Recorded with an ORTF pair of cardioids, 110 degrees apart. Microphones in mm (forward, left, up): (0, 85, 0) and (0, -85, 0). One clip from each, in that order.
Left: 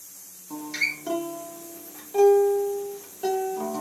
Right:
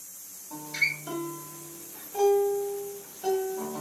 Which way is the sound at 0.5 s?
60° left.